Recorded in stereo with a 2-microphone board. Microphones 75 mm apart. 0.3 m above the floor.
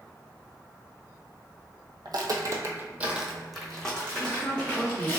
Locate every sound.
2.0 s footsteps: 65° right (ahead or behind), 0.6 m; by 5.2 s 20° left (ahead or behind), 1.5 m
4.2 s a woman speaking: centre (ahead or behind), 0.9 m